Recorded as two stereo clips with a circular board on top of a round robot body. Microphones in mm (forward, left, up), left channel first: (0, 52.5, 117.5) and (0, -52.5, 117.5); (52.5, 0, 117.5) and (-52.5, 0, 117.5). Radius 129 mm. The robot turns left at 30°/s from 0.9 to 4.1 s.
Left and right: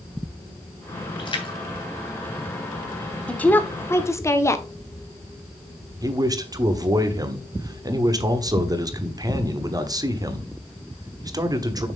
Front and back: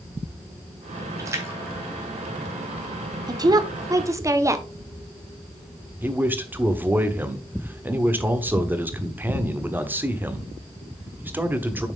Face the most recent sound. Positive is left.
turn(degrees=-120)